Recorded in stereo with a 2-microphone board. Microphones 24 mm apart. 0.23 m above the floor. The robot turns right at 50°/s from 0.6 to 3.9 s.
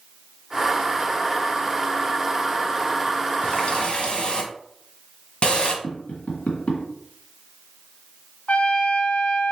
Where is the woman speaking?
No woman speaking in this recording.